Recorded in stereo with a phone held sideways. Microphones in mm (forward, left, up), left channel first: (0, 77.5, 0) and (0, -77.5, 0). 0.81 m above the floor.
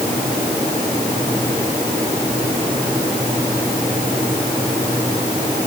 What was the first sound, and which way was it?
Only background noise.